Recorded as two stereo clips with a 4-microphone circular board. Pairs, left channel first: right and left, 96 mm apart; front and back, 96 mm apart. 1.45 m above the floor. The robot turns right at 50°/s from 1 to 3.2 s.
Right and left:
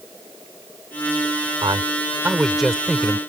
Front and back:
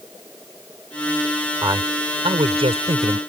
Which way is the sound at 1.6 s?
125° left.